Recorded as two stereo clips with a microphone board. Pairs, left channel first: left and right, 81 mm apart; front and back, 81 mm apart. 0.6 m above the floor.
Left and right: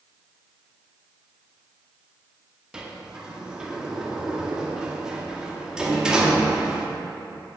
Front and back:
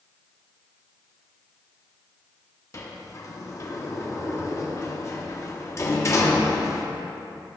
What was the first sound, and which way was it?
A sliding door, 15° right.